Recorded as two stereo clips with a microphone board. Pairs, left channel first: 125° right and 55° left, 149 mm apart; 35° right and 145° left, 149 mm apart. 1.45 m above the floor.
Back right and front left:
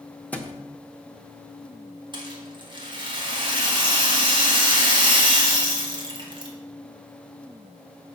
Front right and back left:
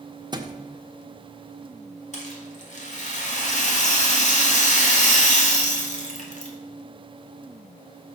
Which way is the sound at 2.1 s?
Straight ahead.